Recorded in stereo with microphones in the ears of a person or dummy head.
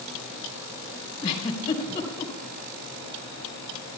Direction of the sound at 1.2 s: 30° left (ahead or behind).